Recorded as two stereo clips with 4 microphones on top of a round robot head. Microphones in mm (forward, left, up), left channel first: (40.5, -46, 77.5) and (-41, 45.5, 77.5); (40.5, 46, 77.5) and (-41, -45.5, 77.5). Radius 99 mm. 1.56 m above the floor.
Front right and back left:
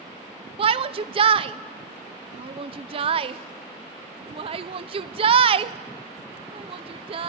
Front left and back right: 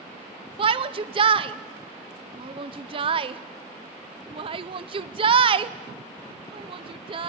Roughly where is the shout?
Behind.